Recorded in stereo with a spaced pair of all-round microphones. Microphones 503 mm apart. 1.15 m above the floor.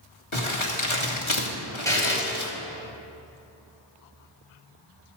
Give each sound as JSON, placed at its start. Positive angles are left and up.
{"t": 0.3, "sound": "crumpling", "side_deg": 65, "distance_m": 2.0}
{"t": 1.9, "sound": "a buzzer", "side_deg": 5, "distance_m": 3.0}